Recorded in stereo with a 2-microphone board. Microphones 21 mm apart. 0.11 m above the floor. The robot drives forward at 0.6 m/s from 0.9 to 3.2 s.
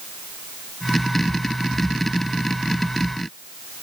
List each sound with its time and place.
Only background noise.